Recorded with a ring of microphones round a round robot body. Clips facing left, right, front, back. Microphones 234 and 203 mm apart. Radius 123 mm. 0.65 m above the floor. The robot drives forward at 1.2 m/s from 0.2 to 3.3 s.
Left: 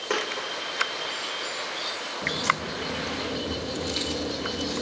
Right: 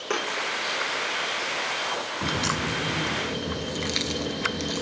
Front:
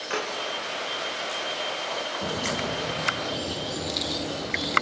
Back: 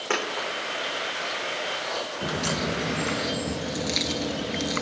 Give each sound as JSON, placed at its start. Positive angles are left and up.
{"t": 0.1, "sound": "a dropped coin", "azimuth_deg": -165, "distance_m": 10.0}
{"t": 2.2, "sound": "a crack", "azimuth_deg": -100, "distance_m": 1.2}